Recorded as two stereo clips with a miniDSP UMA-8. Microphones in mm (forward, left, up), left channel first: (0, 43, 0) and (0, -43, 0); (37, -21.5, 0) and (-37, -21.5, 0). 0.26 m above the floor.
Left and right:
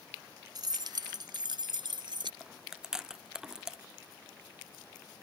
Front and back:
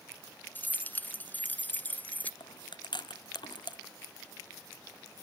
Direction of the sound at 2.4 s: 5° right.